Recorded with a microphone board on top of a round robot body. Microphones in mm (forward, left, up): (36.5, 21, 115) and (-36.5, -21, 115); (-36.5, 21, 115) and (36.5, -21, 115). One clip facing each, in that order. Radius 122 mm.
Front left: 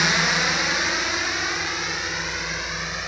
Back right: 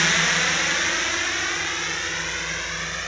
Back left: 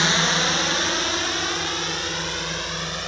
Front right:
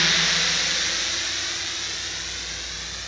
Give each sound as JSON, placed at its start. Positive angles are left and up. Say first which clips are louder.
{"t": 0.0, "sound": "a drone", "louder": "front left 1 dB, back left 4 dB", "azimuth_deg": 105}